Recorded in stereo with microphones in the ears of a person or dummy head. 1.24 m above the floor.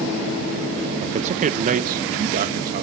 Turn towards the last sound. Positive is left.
turn(degrees=-50)  # may be behind; listen again after turning